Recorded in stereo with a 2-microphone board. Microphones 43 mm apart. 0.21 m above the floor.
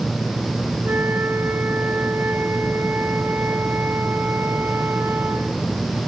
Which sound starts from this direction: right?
A flute, at 0.8 s.